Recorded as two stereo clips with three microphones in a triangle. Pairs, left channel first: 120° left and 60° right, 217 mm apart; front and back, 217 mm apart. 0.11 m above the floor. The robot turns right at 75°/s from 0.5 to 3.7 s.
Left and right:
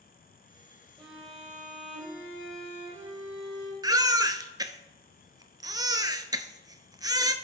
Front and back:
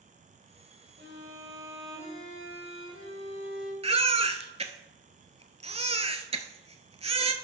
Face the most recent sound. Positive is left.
turn(degrees=-130)